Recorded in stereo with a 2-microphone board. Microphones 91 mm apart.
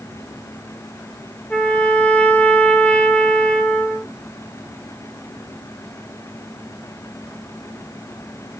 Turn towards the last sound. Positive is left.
turn(degrees=15)  # may be behind; listen again after turning